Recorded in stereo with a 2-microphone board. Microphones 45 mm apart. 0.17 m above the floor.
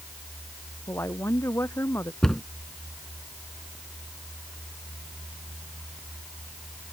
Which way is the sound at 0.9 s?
75° left (ahead or behind).